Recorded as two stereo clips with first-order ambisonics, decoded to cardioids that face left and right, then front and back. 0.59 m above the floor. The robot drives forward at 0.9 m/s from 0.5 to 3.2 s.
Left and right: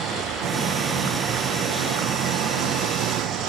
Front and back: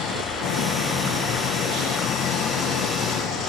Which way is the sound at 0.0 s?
40° right.